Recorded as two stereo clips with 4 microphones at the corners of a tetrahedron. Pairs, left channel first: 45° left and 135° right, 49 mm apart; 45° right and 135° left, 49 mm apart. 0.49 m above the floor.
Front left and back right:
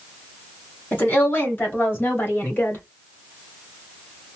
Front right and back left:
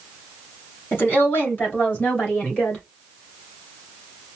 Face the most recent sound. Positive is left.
turn(degrees=20)